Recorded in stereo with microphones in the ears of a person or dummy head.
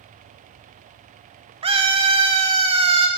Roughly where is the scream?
Right.